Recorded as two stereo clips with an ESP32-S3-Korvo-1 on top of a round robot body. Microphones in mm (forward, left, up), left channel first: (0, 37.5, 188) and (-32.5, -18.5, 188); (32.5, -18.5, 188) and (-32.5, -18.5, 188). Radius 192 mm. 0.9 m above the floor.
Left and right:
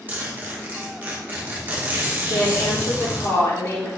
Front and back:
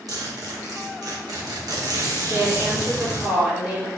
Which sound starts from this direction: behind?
A zipper, at 0.1 s.